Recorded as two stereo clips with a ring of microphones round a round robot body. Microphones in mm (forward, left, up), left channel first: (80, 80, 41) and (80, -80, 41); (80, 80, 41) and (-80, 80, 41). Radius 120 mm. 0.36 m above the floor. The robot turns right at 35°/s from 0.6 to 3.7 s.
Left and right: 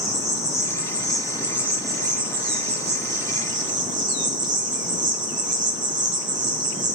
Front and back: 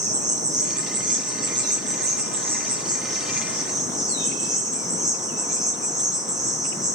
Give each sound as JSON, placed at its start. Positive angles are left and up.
{"t": 0.0, "sound": "an insect", "azimuth_deg": 155, "distance_m": 1.2}